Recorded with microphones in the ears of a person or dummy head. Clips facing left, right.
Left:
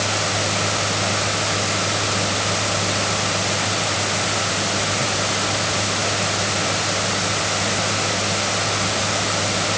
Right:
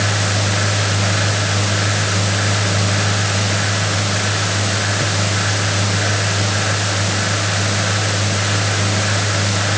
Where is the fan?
15° right (ahead or behind).